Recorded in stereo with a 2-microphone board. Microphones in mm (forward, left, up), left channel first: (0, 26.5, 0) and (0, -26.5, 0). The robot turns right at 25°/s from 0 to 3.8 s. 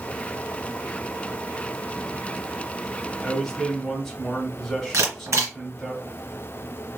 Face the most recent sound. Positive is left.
turn(degrees=-65)  # may be behind; listen again after turning